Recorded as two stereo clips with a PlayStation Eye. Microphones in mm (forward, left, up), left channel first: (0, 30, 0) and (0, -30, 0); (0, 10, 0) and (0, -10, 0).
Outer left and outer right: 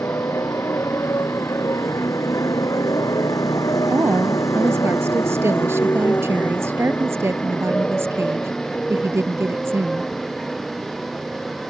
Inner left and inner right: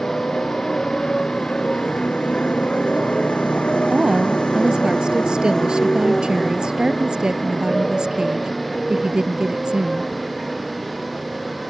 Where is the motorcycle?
45° left (ahead or behind); by 11.7 s centre (ahead or behind).